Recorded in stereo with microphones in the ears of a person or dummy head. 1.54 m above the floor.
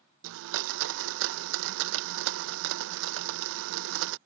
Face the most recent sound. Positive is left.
turn(degrees=-65)  # may be behind; listen again after turning